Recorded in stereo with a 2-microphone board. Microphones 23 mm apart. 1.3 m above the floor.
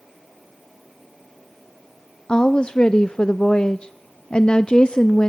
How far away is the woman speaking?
About 0.6 m.